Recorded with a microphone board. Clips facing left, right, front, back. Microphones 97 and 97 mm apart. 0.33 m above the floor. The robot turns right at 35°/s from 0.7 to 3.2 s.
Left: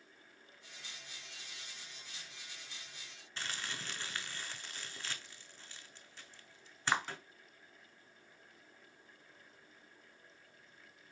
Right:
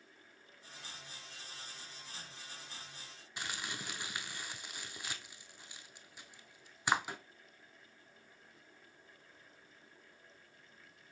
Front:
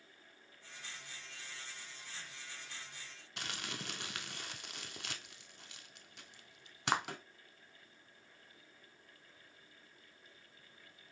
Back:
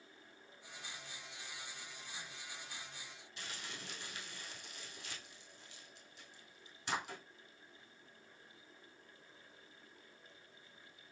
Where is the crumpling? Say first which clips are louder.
Right 1 dB, front 5 dB; 15° right, 0.5 m.